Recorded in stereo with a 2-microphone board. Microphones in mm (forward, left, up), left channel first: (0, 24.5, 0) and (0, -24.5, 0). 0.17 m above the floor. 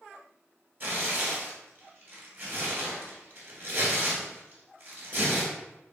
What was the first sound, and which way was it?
Tearing paper, 45° right (ahead or behind).